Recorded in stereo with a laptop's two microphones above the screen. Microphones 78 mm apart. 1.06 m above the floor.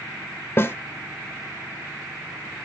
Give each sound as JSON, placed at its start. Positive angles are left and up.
{"t": 0.6, "sound": "a snare drum", "side_deg": 30, "distance_m": 0.9}